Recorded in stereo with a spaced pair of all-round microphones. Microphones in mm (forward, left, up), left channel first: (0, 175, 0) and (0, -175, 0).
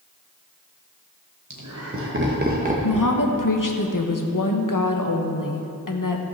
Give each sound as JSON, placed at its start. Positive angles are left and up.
{"t": 1.5, "sound": "laughter", "side_deg": -55, "distance_m": 0.9}
{"t": 2.8, "sound": "a woman speaking", "side_deg": 60, "distance_m": 1.0}